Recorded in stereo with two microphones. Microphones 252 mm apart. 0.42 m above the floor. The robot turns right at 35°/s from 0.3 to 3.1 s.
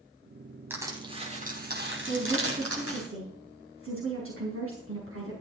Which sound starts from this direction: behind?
Crushing, at 0.7 s.